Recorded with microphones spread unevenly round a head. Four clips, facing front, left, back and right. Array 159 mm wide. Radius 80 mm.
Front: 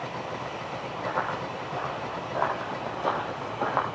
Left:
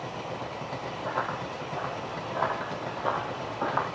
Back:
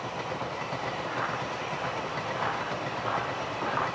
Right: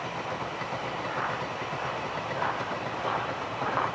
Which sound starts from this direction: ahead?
Running footsteps, at 1.1 s.